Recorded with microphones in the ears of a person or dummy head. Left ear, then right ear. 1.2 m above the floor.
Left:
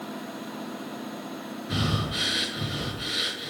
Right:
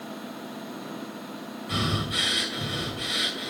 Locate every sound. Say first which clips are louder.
1.7 s breathing: right 2 dB; 25° right (ahead or behind), 1.7 m